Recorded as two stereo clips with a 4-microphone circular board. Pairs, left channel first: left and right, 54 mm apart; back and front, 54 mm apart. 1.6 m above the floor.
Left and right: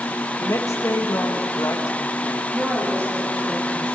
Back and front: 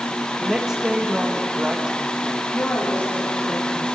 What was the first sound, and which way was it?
A woman speaking, 80° left.